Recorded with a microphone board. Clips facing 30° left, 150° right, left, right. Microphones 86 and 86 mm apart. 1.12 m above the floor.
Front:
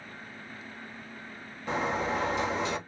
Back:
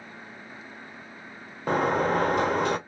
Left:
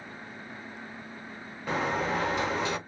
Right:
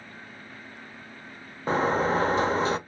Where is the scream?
I don't hear a scream.